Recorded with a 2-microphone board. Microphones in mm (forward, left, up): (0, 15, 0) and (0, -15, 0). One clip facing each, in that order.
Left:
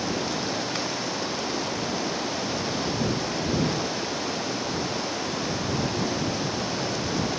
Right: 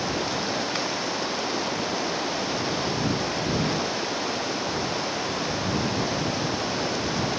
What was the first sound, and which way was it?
Running water, 5° right (ahead or behind).